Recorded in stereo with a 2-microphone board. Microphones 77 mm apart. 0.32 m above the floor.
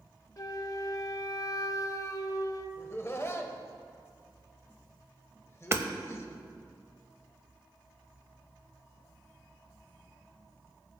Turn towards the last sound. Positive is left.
turn(degrees=-35)  # may be behind; listen again after turning